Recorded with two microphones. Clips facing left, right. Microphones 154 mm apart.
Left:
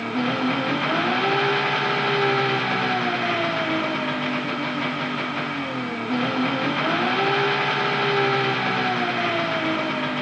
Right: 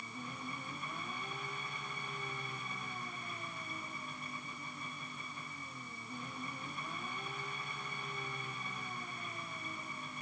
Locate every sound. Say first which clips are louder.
0.0 s an engine running: left 24 dB; 90° left